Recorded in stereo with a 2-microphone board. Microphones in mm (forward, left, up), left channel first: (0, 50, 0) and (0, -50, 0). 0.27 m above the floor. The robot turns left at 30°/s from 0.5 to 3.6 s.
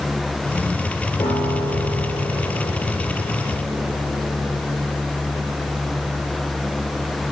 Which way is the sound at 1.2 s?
135° left.